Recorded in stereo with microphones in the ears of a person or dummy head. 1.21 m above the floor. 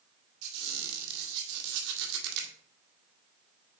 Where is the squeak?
70° right (ahead or behind), 1.8 m.